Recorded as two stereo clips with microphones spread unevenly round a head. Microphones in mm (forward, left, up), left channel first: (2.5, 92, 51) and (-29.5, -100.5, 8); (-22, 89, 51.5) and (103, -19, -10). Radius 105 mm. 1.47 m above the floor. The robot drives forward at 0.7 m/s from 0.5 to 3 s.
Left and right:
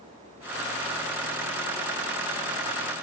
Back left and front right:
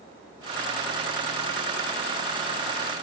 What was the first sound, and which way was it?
Only background noise.